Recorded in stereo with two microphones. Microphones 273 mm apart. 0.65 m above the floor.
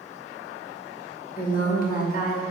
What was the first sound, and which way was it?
A woman speaking, 35° left (ahead or behind).